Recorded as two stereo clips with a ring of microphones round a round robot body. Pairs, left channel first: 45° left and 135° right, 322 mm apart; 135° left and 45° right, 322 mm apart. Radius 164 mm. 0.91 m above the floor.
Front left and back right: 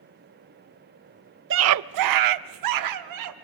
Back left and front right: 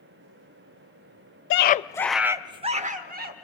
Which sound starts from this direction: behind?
A scream, at 1.5 s.